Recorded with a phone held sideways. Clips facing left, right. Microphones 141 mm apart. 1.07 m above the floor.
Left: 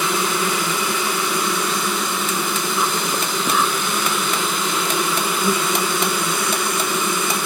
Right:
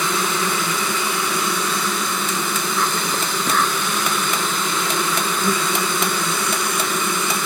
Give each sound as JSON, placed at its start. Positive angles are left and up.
{"t": 0.0, "sound": "an insect", "side_deg": 10}